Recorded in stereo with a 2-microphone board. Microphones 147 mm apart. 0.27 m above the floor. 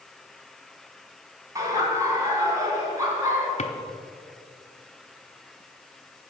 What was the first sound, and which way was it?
Laughter, 25° right (ahead or behind).